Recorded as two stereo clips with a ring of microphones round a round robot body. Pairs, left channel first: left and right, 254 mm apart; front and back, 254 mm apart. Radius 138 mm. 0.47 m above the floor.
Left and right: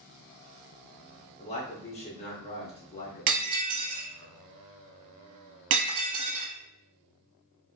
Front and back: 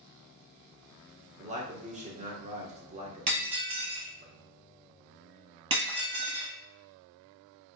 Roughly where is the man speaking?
Behind left.